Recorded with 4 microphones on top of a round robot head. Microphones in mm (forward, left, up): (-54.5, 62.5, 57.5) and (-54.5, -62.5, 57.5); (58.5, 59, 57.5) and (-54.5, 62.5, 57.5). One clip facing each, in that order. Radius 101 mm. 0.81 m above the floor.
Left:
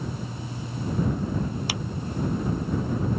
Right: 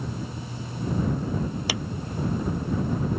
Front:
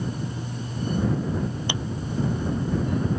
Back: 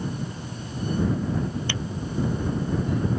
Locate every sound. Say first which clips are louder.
1.7 s a clap: right 2 dB, front 1 dB; 80° right